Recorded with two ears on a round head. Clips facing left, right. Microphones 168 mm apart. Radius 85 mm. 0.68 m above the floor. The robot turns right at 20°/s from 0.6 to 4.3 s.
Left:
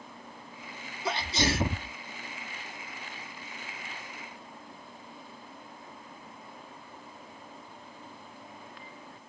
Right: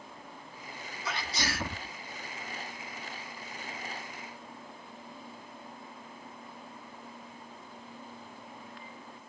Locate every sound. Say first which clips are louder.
1.1 s a sneeze: left 7 dB; 25° left (ahead or behind); by 1.9 s 15° left (ahead or behind)